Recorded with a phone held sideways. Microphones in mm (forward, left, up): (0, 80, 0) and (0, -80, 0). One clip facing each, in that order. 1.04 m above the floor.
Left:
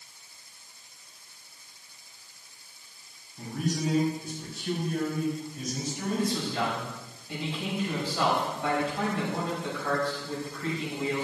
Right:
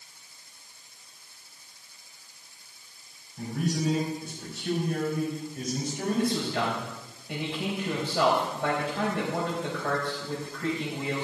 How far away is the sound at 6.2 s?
About 5 m.